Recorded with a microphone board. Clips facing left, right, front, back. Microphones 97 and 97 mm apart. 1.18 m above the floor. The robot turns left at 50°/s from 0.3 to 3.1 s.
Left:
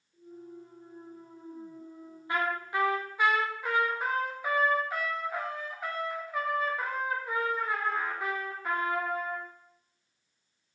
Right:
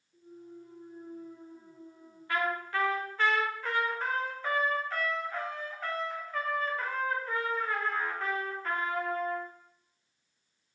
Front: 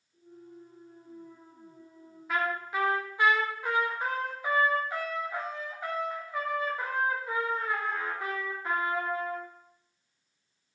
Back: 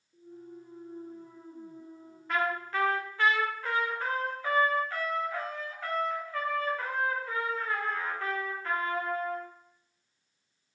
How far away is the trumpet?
About 0.6 m.